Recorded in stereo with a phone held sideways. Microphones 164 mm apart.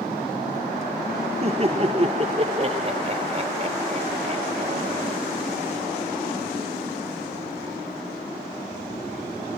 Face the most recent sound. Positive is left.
turn(degrees=-35)  # may be behind; listen again after turning